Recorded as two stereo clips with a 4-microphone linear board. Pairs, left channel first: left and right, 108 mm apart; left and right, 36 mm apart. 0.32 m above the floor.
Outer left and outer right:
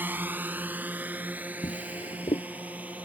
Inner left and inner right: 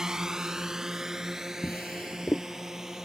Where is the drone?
15° right (ahead or behind).